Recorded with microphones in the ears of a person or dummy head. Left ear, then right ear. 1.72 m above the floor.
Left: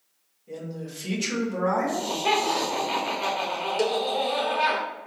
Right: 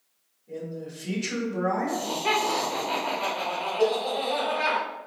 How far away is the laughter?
About 1.1 m.